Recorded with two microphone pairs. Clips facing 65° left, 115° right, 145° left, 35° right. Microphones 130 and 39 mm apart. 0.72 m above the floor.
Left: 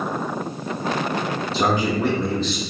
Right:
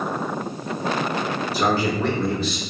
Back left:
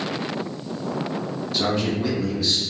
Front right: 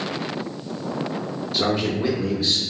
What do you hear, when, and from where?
1.5 s a man speaking: 35° left, 0.9 m; by 2.6 s 55° right, 0.9 m